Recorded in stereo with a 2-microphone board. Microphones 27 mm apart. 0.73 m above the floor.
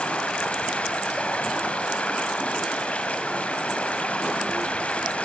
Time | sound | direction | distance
0.0 | running water | 50° left (ahead or behind) | 3 m